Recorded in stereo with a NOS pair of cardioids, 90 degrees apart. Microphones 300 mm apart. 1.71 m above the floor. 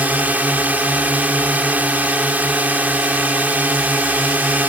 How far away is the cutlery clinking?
No cutlery clinking in this recording.